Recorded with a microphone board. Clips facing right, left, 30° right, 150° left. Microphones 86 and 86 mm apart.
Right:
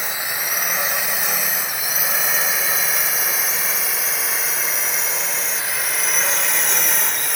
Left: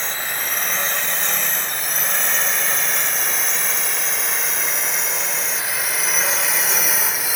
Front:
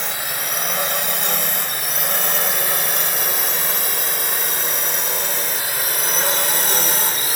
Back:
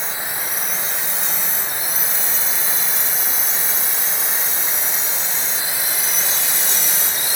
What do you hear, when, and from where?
0.0 s a drone: 10° right; by 7.4 s 5° left